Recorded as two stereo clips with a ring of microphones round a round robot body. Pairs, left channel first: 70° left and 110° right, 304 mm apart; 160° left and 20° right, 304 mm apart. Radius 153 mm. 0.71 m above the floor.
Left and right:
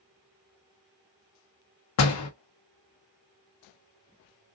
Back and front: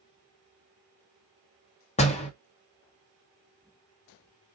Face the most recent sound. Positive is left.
turn(degrees=90)